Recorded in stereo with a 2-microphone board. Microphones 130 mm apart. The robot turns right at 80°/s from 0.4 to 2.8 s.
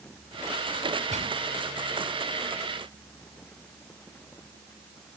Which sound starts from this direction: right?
A gunshot, at 1.1 s.